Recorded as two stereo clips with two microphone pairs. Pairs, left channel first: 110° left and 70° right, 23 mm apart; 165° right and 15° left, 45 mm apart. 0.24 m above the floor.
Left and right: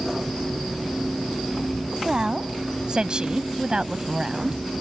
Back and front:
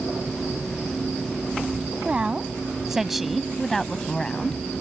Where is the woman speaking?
40° right; by 4.6 s 110° right.